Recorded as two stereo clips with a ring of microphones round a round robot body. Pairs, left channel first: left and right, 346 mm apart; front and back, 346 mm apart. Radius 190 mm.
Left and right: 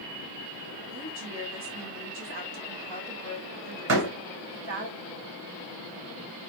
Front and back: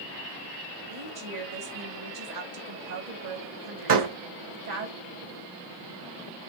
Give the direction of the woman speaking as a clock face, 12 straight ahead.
5 o'clock.